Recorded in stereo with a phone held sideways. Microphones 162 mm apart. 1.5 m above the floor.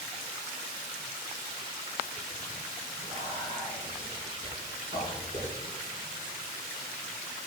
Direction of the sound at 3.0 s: 50° right (ahead or behind).